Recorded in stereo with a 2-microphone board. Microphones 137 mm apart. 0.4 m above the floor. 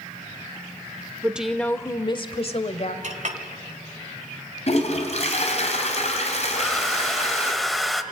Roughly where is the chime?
I don't hear a chime.